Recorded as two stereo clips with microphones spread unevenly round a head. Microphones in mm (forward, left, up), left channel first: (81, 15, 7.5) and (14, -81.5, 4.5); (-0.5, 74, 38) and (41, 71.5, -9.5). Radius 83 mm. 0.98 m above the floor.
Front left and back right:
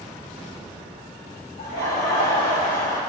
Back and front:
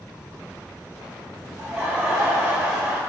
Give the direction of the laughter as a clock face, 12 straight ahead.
9 o'clock.